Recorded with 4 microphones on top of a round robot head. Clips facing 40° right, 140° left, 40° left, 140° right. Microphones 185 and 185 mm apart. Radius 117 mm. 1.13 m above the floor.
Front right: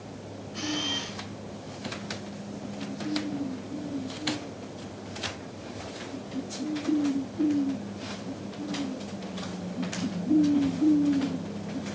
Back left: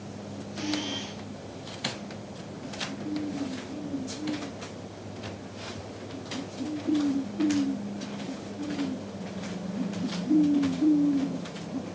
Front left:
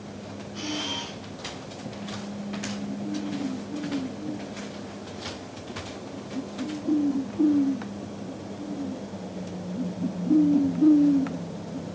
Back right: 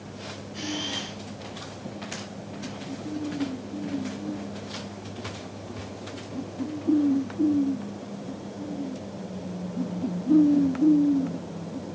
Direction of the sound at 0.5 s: 65° right.